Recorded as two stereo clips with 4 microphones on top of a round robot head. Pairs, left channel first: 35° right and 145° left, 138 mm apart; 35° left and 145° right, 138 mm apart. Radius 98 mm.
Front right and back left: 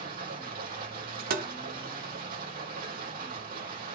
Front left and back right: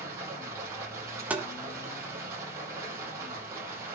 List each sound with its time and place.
0.0 s running water: 145° left, 9 m
1.3 s tapping: 135° left, 1.3 m